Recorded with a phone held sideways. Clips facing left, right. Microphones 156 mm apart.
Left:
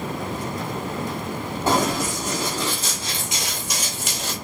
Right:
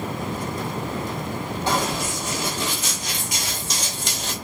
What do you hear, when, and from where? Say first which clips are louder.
1.7 s running footsteps: left 4 dB; 45° left (ahead or behind), 2 m; by 4.3 s centre (ahead or behind), 1.8 m